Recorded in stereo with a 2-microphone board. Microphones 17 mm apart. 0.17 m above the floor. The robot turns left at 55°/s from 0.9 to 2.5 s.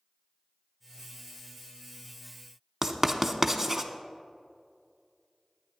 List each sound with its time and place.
2.8 s writing: 20° right (ahead or behind), 0.5 m